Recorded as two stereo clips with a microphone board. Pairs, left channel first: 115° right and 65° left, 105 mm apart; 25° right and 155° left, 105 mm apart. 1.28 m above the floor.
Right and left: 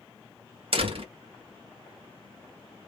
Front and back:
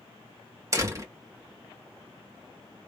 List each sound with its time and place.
0.7 s a door slam: 95° left, 1.8 m